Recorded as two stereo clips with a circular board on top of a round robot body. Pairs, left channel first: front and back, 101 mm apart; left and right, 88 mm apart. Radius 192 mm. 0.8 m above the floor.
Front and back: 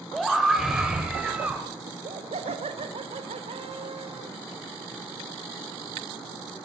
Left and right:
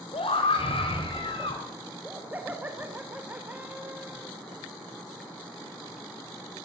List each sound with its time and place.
0.1 s a scream: 90° left, 5.5 m; by 1.6 s 105° left, 6.5 m
1.9 s laughter: 165° right, 2.5 m